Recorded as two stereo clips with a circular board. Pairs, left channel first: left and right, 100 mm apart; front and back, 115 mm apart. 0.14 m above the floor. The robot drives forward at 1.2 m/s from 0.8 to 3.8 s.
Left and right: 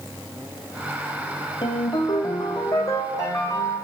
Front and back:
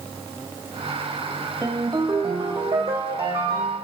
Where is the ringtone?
115° left, 2 m; by 3.9 s 155° left, 4 m.